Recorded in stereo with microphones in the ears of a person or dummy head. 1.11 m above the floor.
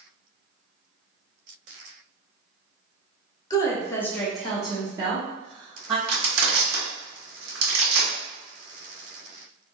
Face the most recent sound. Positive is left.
turn(degrees=-70)  # may be behind; listen again after turning